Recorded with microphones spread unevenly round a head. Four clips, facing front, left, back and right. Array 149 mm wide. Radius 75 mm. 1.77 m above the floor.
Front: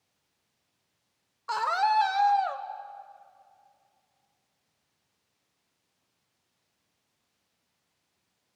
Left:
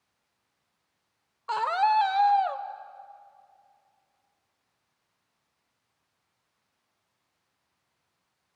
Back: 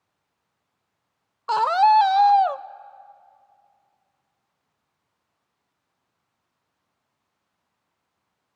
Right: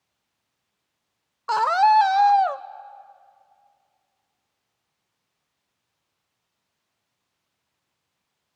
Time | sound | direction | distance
1.5 | a scream | 145° right | 0.6 m